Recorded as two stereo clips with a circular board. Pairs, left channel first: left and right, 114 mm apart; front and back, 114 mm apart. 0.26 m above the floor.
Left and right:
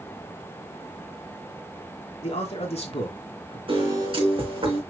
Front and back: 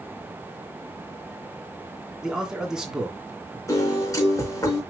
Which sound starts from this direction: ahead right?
A piano, at 3.7 s.